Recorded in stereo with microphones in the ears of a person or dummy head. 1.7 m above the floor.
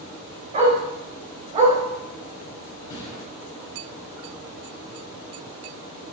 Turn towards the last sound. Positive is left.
turn(degrees=20)  # may be behind; listen again after turning